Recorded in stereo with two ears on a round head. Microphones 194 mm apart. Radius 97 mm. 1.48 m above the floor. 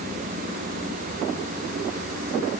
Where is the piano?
No piano in this recording.